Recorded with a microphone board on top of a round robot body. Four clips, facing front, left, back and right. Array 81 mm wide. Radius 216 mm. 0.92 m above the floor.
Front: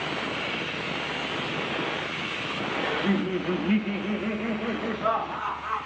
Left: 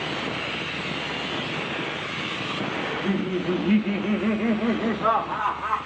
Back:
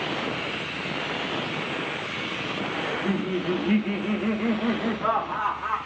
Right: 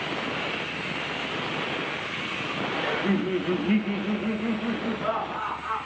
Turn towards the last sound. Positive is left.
turn(degrees=115)